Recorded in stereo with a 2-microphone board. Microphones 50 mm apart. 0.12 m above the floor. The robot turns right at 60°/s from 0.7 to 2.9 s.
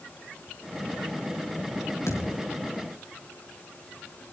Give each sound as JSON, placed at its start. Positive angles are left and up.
{"t": 2.1, "sound": "a thud", "side_deg": 90, "distance_m": 6.0}